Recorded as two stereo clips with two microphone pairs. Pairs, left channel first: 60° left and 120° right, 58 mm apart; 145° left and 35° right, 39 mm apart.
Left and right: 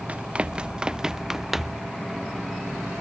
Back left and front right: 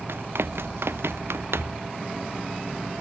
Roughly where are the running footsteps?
Ahead right.